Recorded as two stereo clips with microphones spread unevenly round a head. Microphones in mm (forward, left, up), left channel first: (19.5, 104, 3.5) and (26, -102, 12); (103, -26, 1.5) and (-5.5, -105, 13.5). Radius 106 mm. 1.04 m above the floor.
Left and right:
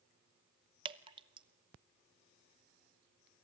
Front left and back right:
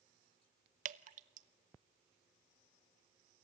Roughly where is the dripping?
Behind right.